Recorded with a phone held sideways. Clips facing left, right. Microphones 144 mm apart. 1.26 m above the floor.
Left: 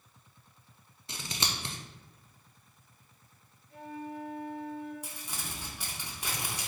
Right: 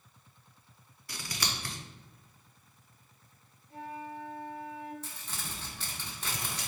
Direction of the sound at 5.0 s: 10° left (ahead or behind).